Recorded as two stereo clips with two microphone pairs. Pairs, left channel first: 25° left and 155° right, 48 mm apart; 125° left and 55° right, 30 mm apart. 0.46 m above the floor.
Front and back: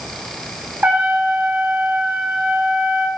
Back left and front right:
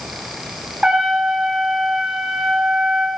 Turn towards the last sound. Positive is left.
turn(degrees=-110)